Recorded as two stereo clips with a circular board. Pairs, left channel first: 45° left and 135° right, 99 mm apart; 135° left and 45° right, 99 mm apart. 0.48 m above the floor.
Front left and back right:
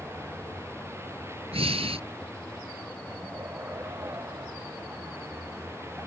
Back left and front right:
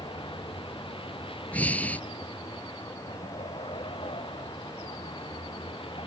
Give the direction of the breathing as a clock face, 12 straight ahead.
5 o'clock.